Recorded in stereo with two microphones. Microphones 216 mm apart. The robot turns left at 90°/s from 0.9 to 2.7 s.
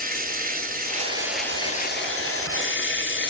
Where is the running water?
135° right, 0.7 m; by 3.3 s 60° left, 0.7 m.